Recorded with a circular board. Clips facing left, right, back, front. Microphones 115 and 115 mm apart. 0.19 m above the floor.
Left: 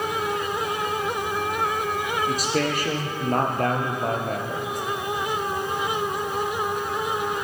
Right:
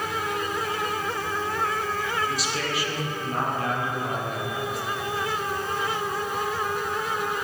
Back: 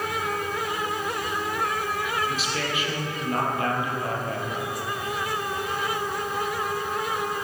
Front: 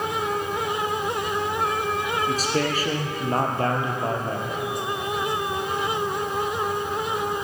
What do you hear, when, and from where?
2.3 s a man speaking: 50° left, 5 m; by 4.7 s 60° left, 3.5 m